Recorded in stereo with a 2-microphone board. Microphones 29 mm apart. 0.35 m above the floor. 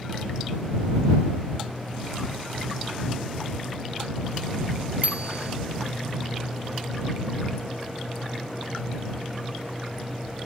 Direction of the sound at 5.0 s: 50° right (ahead or behind).